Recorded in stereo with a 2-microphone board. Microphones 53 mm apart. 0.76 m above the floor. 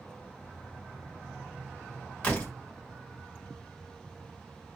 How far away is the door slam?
About 1.5 m.